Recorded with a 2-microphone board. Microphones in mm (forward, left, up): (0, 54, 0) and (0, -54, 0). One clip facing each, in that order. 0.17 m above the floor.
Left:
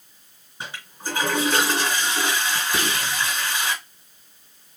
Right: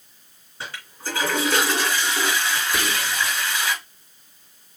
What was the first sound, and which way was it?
A toilet flushing, 20° left (ahead or behind).